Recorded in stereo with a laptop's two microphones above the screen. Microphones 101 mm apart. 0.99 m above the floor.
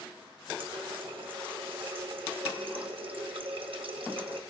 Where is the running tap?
70° right (ahead or behind), 0.7 m.